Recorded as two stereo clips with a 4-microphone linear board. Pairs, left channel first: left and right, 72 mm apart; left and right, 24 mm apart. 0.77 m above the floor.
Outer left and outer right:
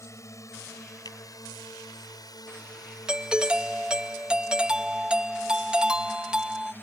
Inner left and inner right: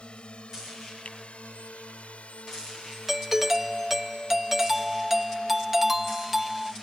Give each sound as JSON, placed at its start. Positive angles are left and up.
{"t": 0.0, "sound": "a drone", "side_deg": 45}
{"t": 1.1, "sound": "a finger snap", "side_deg": 70}
{"t": 3.1, "sound": "a doorbell", "side_deg": -15}